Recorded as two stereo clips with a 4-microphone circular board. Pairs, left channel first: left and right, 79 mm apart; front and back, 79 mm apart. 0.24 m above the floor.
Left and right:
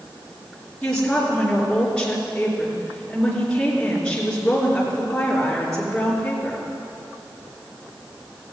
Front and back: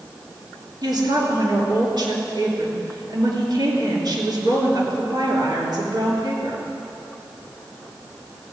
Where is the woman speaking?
170° left, 3.5 m.